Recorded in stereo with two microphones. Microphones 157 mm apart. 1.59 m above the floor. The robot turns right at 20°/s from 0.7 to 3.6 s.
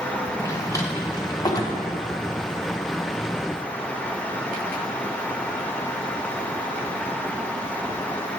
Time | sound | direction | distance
0.4 | a drawer | 20° left (ahead or behind) | 0.7 m